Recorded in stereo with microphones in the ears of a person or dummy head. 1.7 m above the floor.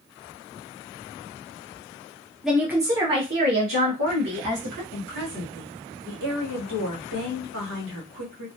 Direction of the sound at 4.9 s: 60° right (ahead or behind).